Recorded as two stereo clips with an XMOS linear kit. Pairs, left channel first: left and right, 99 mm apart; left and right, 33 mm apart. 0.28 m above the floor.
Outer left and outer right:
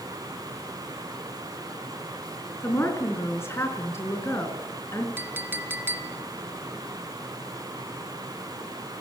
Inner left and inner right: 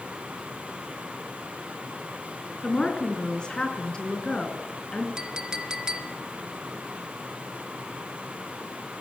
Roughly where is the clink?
Right.